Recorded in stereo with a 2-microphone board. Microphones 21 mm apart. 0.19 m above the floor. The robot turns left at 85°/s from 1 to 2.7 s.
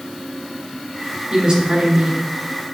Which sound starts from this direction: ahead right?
A woman speaking, at 1.3 s.